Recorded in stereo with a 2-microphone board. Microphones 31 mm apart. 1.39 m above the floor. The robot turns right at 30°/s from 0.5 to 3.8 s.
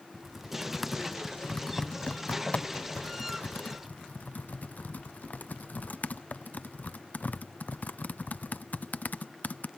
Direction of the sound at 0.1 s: 10° right (ahead or behind).